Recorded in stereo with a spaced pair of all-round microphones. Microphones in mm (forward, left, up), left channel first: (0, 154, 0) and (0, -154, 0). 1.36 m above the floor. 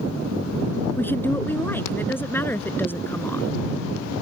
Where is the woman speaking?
5° left (ahead or behind).